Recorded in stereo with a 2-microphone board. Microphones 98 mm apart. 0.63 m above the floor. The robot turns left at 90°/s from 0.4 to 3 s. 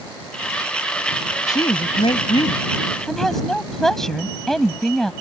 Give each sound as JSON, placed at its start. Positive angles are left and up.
{"t": 1.5, "sound": "a woman speaking", "azimuth_deg": 140}